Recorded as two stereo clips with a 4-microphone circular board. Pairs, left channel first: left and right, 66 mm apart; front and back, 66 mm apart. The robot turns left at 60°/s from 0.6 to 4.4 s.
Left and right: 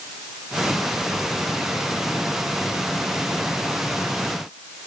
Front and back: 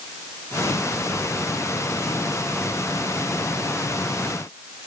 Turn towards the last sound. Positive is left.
No sound to turn to.